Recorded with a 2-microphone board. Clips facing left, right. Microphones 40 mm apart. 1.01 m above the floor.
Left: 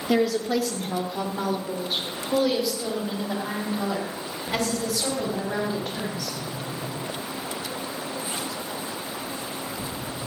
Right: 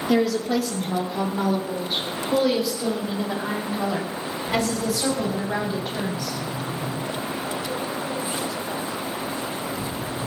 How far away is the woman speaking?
About 2.5 m.